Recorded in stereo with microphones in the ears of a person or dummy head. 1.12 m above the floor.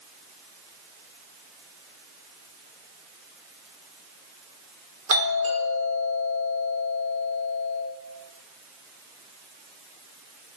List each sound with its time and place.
5.1 s a doorbell: 70° right (ahead or behind), 1.6 m